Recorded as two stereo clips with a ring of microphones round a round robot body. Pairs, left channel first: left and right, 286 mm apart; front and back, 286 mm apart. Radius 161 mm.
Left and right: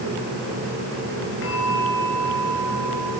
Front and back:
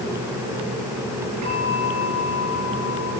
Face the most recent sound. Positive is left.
turn(degrees=140)